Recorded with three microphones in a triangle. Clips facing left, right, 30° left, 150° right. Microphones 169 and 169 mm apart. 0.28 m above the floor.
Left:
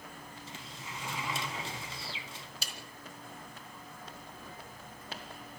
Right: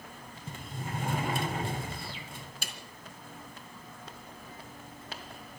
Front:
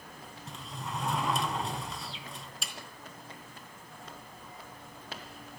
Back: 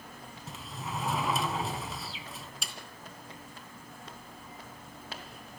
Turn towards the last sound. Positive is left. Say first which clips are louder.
# right 3 dB, even
turn(degrees=-60)